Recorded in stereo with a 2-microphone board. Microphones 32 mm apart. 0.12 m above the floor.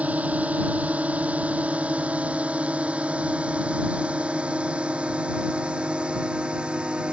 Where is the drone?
55° right (ahead or behind); by 7.1 s 35° right (ahead or behind).